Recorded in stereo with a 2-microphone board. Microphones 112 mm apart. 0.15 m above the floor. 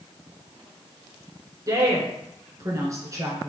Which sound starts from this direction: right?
A woman speaking, at 1.7 s.